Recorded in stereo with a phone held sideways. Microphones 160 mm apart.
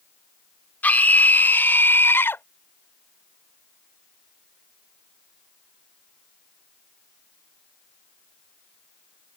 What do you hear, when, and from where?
0.8 s a scream: 10° left (ahead or behind); by 2.4 s 15° left (ahead or behind)